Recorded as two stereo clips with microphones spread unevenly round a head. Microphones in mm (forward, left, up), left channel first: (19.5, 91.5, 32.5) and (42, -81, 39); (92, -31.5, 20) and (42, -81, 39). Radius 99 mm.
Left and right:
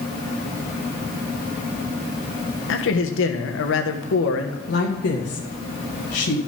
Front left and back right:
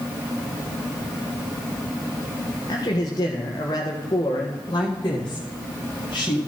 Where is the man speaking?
95° left, 1.5 m.